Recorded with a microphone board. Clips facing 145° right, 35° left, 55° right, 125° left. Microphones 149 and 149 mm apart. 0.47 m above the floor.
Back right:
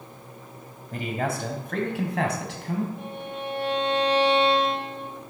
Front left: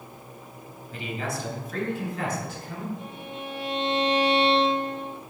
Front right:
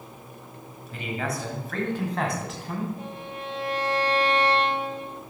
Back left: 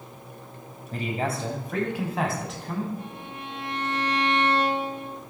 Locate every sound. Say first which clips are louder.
0.9 s a man speaking: back right 4 dB, back left 2 dB; 170° left, 2.5 m; by 2.9 s 140° right, 4 m
3.0 s a violin: back right 3 dB, front right 2 dB; 120° right, 5.5 m